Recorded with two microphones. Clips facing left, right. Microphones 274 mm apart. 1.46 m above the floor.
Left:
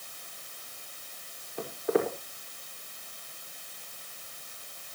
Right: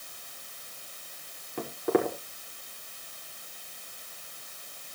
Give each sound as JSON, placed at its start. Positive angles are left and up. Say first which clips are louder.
{"t": 1.6, "sound": "footsteps", "louder": "right 1 dB", "side_deg": -75, "distance_m": 5.5}